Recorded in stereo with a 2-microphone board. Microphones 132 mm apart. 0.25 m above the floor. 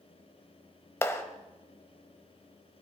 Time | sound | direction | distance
1.0 | a clap | 20° left (ahead or behind) | 1.0 m